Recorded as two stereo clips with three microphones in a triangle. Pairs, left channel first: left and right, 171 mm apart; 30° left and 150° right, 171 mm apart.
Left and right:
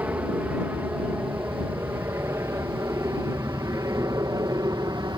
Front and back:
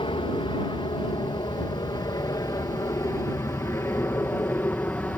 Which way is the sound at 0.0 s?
15° right.